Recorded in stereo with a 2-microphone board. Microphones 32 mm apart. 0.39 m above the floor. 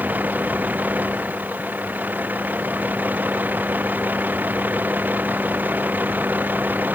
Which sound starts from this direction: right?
A vehicle, at 0.0 s.